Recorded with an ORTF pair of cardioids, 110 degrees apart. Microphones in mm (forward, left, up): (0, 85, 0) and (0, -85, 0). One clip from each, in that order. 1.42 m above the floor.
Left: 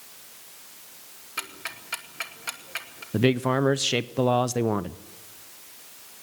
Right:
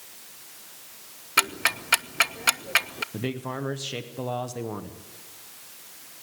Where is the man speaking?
50° left, 0.8 m.